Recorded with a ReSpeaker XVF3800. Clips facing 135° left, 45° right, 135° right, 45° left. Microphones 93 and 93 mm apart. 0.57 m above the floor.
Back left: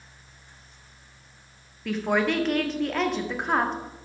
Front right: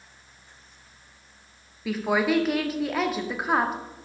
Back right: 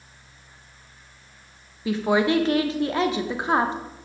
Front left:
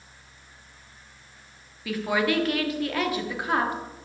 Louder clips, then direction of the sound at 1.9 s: Front right 1 dB, back right 4 dB; 125° right.